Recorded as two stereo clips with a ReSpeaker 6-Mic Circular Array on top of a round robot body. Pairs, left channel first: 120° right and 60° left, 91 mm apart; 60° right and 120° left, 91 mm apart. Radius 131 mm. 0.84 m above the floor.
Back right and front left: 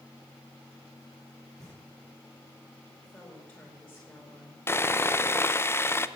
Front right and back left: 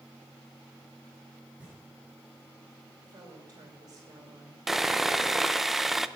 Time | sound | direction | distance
1.6 | knocking | 165° right | 8 m
3.0 | a woman speaking | 170° left | 4 m
4.7 | sawing | 155° right | 0.8 m